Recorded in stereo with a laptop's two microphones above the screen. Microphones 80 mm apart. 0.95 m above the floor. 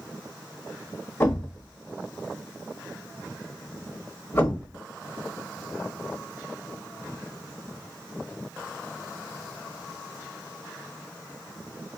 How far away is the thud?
About 1.1 m.